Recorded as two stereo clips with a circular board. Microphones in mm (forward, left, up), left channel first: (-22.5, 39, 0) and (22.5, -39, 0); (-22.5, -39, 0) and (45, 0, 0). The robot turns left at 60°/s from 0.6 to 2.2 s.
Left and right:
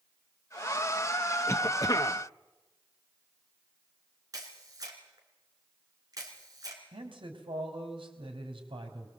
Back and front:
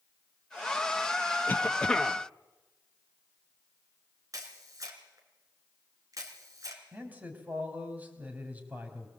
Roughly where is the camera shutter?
Ahead.